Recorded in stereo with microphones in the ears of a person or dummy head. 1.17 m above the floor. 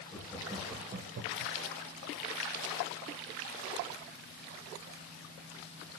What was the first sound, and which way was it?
Laughter, 10° left (ahead or behind).